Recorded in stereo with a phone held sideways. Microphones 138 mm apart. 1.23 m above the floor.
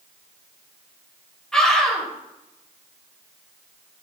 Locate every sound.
1.5 s a scream: 5° left (ahead or behind), 3.5 m